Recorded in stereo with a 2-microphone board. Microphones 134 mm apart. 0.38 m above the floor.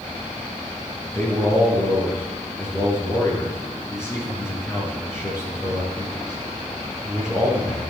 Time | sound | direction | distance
1.1 | a man speaking | 20° left (ahead or behind) | 5.5 m